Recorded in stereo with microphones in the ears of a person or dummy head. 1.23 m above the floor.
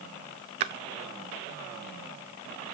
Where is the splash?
35° right (ahead or behind), 0.6 m.